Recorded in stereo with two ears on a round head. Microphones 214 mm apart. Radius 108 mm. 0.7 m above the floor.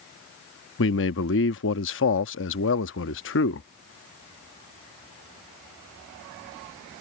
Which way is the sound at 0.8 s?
55° left (ahead or behind).